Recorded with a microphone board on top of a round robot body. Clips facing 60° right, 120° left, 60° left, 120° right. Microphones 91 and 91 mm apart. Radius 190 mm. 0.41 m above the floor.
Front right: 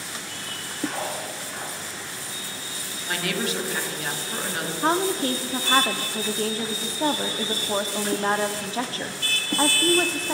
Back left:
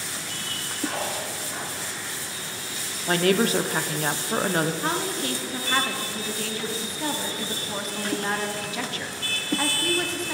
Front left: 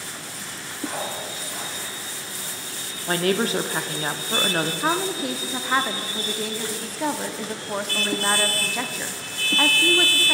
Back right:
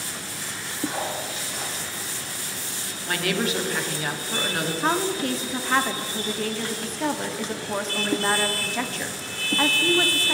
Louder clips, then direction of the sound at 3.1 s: Back left 7 dB, front left 4 dB; 100° left.